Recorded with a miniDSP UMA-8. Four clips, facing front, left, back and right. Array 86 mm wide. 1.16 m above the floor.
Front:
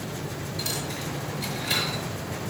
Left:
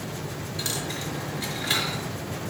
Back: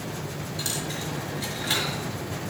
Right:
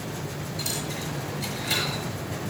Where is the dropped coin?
120° left, 4.5 m.